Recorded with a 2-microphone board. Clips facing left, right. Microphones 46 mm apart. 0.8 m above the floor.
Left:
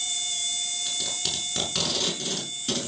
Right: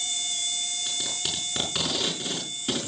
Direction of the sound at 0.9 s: 15° right (ahead or behind).